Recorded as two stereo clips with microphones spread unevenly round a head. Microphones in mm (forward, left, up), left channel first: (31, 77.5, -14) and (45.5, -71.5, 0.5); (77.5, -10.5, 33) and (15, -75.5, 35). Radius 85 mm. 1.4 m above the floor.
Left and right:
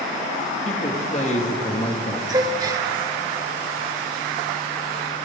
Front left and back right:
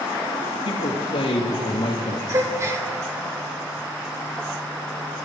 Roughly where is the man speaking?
Ahead left.